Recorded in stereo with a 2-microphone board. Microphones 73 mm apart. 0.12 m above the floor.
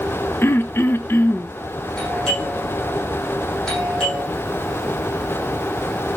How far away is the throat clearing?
About 0.9 m.